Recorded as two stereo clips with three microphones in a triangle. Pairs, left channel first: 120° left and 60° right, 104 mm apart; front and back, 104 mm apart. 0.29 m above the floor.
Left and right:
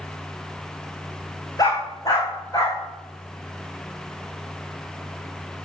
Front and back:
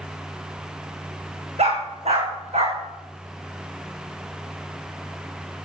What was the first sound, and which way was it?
A dog barking, 175° left.